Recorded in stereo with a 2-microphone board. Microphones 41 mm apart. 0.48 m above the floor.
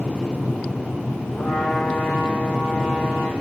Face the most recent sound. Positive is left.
turn(degrees=70)  # may be behind; listen again after turning